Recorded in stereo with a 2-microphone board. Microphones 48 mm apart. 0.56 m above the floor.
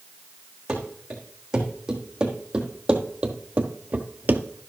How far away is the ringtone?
I don't hear a ringtone.